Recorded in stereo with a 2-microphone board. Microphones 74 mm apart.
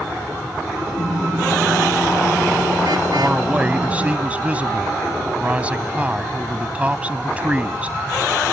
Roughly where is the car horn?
Right.